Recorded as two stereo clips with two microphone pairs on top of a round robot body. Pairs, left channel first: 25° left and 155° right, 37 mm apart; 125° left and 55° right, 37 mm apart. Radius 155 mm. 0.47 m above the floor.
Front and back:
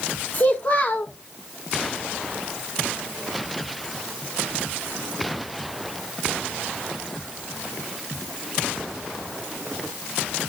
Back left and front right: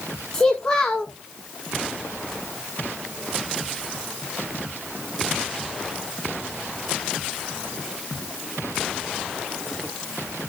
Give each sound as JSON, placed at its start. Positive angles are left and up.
{"t": 0.3, "sound": "a child speaking", "azimuth_deg": 55, "distance_m": 1.5}